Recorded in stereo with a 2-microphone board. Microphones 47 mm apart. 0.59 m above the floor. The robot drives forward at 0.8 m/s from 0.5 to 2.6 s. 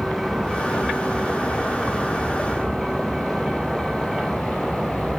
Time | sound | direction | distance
0.0 | a vehicle | 5° right (ahead or behind) | ?